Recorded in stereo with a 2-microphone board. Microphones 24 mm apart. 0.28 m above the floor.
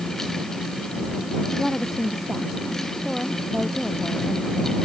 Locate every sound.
1.5 s a woman speaking: 15° right (ahead or behind); by 4.8 s 10° right (ahead or behind)